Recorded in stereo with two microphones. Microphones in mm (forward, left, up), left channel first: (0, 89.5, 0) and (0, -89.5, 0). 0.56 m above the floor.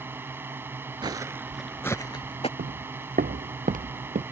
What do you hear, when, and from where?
0.0 s a drone: 15° right (ahead or behind)
1.0 s footsteps: 25° right (ahead or behind); by 2.5 s 35° left (ahead or behind)
2.6 s footsteps: 65° right (ahead or behind); by 4.2 s 50° right (ahead or behind)